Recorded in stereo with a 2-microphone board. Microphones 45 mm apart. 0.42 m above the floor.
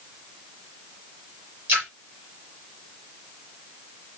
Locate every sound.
1.7 s a splash: 55° right (ahead or behind), 5.5 m